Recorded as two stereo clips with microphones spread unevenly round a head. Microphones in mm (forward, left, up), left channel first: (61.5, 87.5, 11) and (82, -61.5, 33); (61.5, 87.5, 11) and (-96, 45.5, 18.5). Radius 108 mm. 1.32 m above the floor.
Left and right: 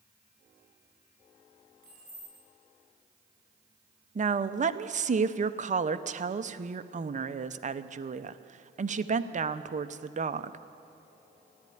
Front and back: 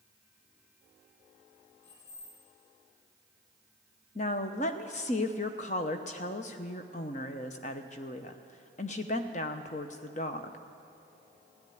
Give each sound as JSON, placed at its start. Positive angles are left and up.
{"t": 1.8, "sound": "keys jangling", "azimuth_deg": -55, "distance_m": 7.0}
{"t": 4.2, "sound": "a woman speaking", "azimuth_deg": -40, "distance_m": 0.7}